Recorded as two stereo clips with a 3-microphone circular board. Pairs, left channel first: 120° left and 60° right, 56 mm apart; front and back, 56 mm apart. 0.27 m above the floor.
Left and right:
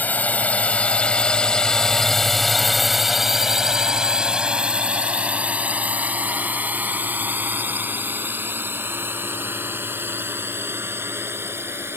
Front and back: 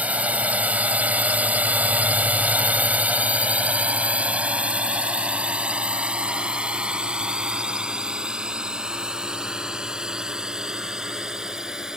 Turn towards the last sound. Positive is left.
turn(degrees=-100)